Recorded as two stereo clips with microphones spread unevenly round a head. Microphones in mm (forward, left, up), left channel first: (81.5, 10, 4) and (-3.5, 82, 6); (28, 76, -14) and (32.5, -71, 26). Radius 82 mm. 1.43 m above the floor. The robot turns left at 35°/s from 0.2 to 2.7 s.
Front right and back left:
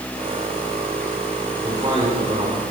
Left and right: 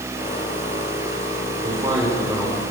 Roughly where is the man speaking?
Behind right.